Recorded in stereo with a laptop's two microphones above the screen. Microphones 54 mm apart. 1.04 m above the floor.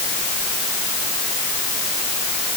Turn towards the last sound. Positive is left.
No sound to turn to.